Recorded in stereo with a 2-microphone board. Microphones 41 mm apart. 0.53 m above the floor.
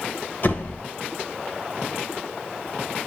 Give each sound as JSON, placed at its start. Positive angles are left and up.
{"t": 0.4, "sound": "a door slam", "side_deg": 45, "distance_m": 1.3}